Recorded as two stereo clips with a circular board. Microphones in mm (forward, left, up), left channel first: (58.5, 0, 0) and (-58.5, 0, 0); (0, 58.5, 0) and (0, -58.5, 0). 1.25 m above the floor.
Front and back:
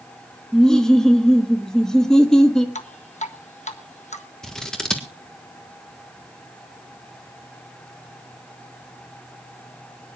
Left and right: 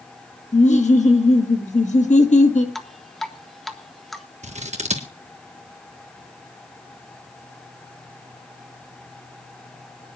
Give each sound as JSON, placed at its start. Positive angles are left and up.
{"t": 0.5, "sound": "laughter", "azimuth_deg": 85, "distance_m": 1.5}
{"t": 2.8, "sound": "dripping", "azimuth_deg": 0, "distance_m": 1.0}
{"t": 4.4, "sound": "scissors", "azimuth_deg": -85, "distance_m": 1.5}